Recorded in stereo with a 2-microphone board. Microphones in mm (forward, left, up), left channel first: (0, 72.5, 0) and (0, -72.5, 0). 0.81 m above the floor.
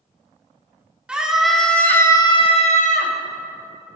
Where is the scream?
5° right (ahead or behind), 1.8 m; by 3.1 s 65° left (ahead or behind), 1.1 m.